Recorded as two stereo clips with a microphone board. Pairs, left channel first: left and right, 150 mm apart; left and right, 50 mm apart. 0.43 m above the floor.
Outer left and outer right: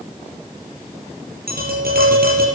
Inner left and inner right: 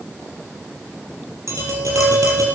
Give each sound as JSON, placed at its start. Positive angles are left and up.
{"t": 1.5, "sound": "tapping", "side_deg": -85, "distance_m": 5.0}